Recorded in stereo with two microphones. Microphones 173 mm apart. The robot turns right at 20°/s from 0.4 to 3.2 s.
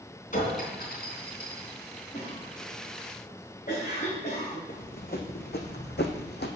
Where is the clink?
50° left (ahead or behind), 3 m; by 1.7 s 70° left (ahead or behind), 3 m.